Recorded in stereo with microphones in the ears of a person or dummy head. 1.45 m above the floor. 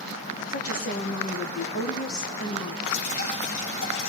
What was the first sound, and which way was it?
A woman speaking, 45° left (ahead or behind).